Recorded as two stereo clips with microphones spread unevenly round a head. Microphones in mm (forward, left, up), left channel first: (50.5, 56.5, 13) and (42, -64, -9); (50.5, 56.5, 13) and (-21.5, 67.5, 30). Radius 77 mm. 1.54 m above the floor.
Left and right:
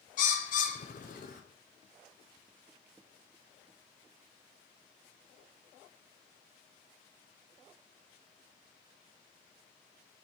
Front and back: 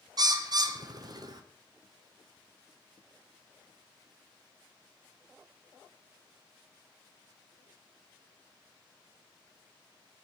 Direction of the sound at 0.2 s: 130° left.